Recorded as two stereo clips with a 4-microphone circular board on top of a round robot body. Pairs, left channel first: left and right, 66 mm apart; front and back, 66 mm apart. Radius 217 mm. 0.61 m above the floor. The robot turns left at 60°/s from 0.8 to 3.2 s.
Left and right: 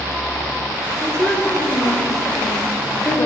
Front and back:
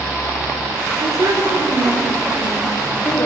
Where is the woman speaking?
175° left, 4 m; by 3.3 s 45° left, 4 m.